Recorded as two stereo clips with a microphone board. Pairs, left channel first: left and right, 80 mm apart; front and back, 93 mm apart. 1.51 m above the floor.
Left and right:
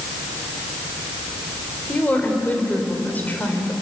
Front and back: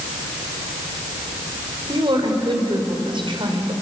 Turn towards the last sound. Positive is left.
turn(degrees=155)